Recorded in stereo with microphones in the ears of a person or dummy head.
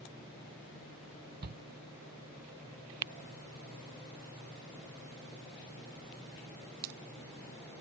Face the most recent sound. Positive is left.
turn(degrees=-50)  # may be behind; listen again after turning